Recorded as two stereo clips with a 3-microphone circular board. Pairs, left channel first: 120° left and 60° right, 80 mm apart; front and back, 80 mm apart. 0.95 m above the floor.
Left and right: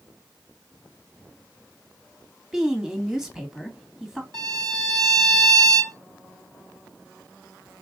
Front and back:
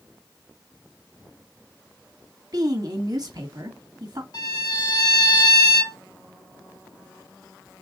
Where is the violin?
30° right, 2.5 m.